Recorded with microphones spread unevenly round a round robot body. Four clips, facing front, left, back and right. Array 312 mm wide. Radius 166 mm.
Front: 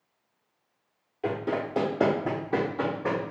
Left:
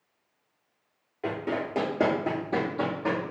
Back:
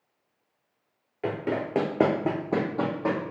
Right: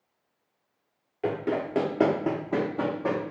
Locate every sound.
1.2 s running footsteps: 125° right, 0.5 m; by 3.3 s straight behind, 1.4 m